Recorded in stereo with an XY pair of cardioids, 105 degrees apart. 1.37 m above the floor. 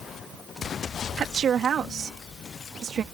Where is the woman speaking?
55° right.